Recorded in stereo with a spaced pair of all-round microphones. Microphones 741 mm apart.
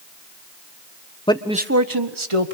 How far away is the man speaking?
About 1.3 m.